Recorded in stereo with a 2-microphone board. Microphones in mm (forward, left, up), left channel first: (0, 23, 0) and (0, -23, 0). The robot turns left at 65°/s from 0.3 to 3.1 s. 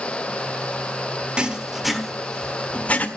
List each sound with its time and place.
1.4 s writing: 20° right (ahead or behind), 1.5 m; by 3.1 s 35° left (ahead or behind), 1.5 m